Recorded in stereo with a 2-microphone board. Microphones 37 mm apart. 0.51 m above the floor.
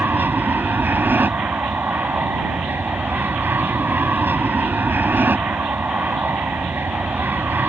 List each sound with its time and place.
0.0 s an aircraft: 70° right (ahead or behind)